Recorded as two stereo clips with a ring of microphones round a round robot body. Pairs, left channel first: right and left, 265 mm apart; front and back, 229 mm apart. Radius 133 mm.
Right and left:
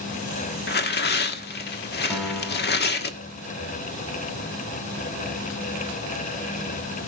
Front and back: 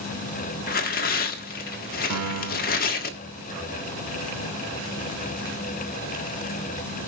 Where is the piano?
Straight behind, 2.5 m.